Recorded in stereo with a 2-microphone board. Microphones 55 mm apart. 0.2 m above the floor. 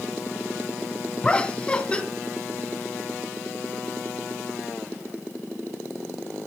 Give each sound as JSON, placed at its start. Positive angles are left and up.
{"t": 1.2, "sound": "laughter", "side_deg": 20, "distance_m": 1.4}